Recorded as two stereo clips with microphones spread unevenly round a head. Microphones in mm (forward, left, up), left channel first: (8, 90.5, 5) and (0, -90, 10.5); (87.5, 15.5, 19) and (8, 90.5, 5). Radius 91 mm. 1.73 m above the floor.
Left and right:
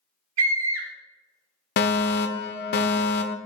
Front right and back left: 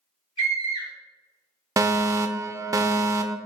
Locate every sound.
0.4 s a scream: 110° right, 2.5 m
1.8 s a fire alarm: 85° left, 0.7 m